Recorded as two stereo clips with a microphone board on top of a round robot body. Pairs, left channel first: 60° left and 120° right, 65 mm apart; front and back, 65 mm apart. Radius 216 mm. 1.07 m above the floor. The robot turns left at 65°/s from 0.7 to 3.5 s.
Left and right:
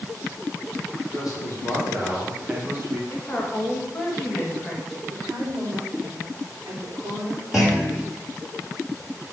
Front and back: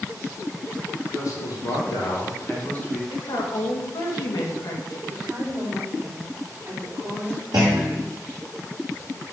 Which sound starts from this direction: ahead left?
A man speaking, at 1.1 s.